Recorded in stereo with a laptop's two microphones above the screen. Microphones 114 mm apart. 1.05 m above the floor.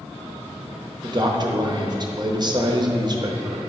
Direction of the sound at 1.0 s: 40° right (ahead or behind).